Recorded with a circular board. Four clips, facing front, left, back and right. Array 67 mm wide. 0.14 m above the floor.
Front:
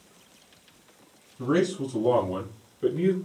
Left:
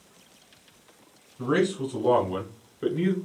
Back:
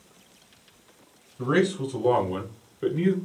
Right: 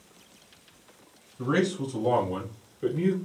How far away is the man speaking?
About 1.1 m.